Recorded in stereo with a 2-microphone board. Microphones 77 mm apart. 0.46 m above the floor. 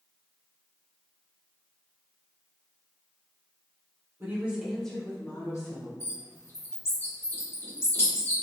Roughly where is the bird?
Left.